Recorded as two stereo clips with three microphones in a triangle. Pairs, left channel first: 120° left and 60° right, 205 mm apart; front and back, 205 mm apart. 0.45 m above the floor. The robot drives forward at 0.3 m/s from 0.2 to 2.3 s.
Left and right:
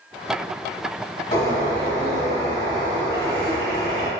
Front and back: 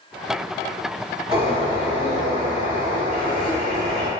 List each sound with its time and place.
1.3 s a bird: 130° left, 1.2 m; by 4.1 s 145° left, 1.3 m